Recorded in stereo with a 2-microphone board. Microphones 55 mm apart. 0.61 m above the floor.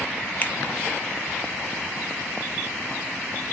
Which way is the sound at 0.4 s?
35° left (ahead or behind).